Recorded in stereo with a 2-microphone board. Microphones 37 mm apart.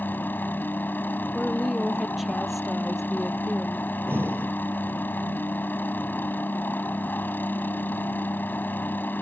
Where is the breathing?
85° right.